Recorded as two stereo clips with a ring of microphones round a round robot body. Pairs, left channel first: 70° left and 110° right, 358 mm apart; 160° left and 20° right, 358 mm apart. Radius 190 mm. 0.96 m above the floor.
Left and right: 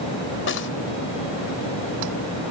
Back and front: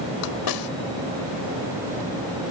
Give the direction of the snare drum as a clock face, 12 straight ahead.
8 o'clock.